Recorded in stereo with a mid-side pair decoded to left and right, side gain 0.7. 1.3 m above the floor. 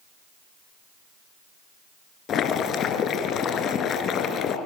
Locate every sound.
2.3 s boiling: 45° left, 3.5 m